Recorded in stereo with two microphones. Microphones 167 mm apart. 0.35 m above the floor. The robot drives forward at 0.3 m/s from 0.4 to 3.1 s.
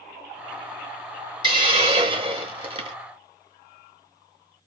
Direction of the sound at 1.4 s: 30° right (ahead or behind).